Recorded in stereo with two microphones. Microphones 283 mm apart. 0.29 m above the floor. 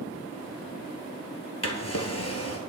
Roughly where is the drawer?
Left.